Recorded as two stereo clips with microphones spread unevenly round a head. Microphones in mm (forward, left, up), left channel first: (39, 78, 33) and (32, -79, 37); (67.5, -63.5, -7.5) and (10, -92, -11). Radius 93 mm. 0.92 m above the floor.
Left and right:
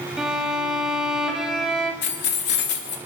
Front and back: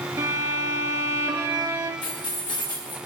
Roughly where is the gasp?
I don't hear a gasp.